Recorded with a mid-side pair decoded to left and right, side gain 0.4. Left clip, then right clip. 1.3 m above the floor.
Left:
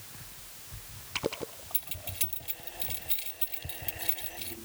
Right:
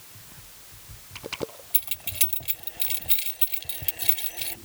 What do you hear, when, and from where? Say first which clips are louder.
1.7 s keys jangling: right 8 dB; 60° right